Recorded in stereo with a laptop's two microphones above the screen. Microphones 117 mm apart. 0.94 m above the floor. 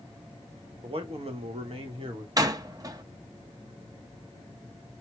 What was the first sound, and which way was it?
A man speaking, 50° right (ahead or behind).